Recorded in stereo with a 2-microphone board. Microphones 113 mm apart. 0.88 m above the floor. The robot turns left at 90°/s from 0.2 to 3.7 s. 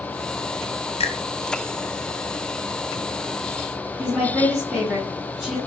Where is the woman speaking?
Centre (ahead or behind), 1.6 m.